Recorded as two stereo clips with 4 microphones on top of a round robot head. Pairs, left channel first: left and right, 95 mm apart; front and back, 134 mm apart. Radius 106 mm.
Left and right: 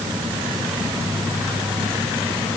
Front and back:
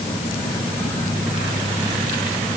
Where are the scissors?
No scissors in this recording.